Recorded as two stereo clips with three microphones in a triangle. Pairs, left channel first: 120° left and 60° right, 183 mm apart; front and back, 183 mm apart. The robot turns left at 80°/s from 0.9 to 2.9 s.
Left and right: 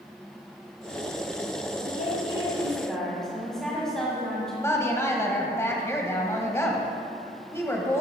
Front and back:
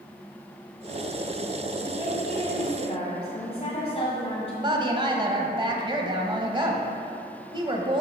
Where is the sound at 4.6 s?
175° left, 1.1 m.